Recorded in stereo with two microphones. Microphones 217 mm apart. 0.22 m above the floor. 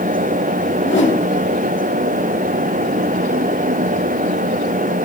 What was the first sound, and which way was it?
A whoosh, 60° left (ahead or behind).